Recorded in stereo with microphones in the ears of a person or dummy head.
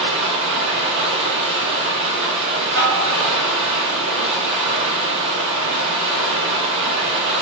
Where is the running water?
65° right (ahead or behind), 2 m.